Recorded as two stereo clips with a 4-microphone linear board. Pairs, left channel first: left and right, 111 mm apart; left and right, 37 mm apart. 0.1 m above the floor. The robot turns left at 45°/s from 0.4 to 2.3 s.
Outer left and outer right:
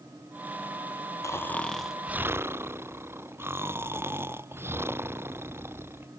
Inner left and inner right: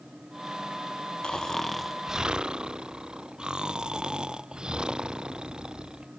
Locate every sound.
1.2 s snoring: 25° left; by 6.1 s 20° right